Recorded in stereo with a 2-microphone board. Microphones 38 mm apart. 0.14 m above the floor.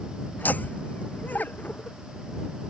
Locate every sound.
0.4 s laughter: 50° left (ahead or behind)